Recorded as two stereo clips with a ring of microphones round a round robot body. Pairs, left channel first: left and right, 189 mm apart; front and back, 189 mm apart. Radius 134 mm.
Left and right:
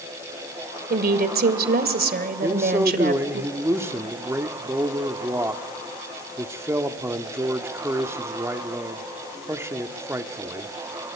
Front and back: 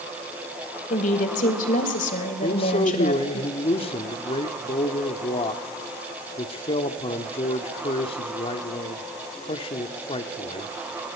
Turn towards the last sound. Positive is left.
turn(degrees=-25)